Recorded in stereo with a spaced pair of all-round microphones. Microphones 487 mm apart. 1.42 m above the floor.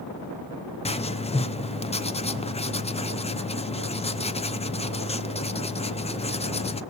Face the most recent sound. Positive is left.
turn(degrees=15)  # may be behind; listen again after turning